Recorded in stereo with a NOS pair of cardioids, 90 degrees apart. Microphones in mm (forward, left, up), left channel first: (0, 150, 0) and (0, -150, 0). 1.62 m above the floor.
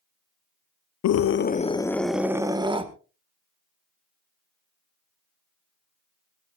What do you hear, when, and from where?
1.0 s a scream: 60° left, 0.9 m; by 2.9 s 15° right, 1.9 m